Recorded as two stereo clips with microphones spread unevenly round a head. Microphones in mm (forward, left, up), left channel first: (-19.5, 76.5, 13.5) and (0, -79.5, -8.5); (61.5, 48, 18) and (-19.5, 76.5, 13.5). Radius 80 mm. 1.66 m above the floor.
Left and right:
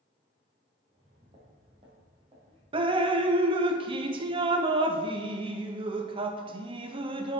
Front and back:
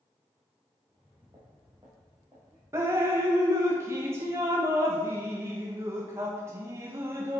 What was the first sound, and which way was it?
Footsteps, 130° right.